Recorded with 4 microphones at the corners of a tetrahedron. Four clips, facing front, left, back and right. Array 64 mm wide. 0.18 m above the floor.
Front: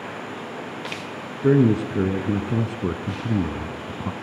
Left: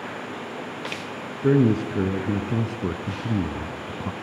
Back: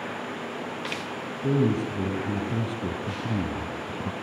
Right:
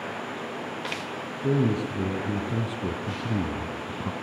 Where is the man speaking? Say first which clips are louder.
Left 6 dB, front 7 dB; 30° left, 2.5 m; by 4.1 s 10° right, 1.2 m.